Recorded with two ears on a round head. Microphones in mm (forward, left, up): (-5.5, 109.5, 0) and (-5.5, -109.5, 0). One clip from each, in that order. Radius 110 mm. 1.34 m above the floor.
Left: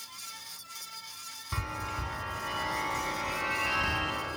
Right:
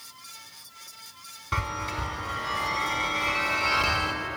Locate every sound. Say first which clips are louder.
1.5 s a chime: right 6 dB; 30° right (ahead or behind), 1.2 m